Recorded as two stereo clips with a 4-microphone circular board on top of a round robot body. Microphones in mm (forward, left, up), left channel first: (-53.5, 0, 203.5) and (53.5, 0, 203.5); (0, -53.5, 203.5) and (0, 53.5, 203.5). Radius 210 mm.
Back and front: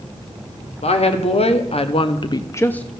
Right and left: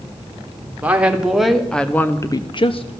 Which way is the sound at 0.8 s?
165° left.